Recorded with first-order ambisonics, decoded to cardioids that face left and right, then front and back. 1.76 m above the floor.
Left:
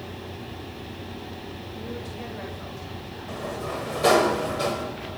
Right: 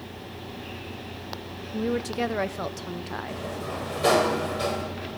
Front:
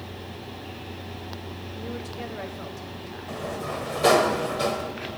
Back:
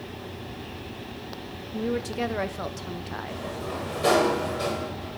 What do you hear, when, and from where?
1.7 s a woman speaking: 125° right, 0.8 m
3.3 s a sliding door: 25° left, 1.6 m